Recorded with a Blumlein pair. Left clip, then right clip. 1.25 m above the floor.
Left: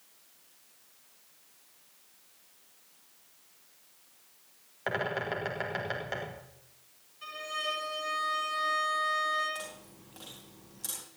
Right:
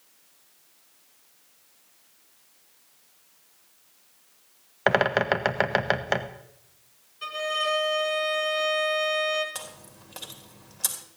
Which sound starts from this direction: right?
A violin, at 7.2 s.